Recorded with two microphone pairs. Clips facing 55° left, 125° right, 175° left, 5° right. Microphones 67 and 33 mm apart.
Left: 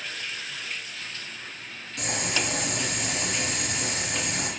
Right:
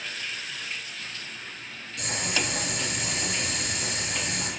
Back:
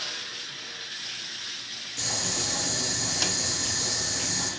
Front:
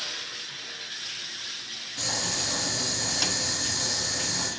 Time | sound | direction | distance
2.0 | boiling | 60° left | 1.7 m